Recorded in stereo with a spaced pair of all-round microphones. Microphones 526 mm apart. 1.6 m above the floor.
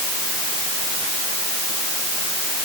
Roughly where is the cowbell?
No cowbell in this recording.